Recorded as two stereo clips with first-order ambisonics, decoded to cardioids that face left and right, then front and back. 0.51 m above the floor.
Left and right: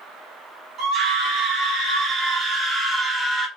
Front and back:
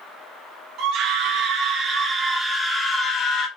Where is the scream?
155° right, 1.5 m; by 3.5 s straight ahead, 1.1 m.